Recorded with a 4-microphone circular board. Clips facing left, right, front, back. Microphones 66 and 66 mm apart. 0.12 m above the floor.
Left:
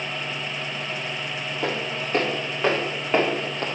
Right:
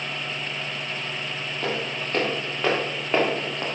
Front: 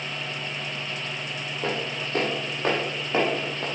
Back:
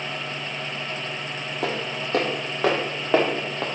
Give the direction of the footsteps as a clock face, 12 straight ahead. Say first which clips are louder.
Left 1 dB, back 1 dB; 6 o'clock.